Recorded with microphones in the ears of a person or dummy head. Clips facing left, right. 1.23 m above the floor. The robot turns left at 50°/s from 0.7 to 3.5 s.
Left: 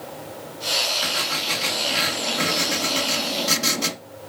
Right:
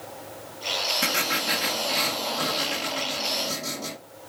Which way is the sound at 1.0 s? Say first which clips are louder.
Right 1 dB; 140° right.